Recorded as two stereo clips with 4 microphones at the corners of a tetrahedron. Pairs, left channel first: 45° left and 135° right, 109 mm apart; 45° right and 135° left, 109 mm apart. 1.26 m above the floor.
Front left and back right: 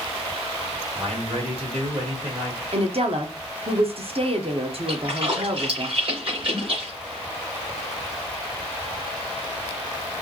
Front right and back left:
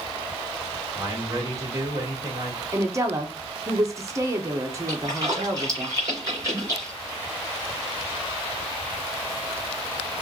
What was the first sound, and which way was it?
A man speaking, 170° right.